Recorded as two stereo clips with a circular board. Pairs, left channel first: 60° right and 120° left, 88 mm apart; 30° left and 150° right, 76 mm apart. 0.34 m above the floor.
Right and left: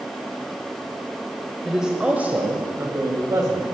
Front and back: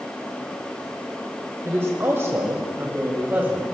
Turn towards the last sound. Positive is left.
turn(degrees=150)